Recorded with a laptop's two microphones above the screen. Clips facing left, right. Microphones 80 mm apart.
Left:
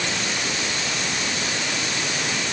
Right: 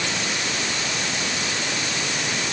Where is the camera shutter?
I don't hear a camera shutter.